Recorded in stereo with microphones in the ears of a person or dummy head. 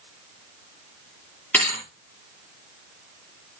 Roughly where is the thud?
Centre.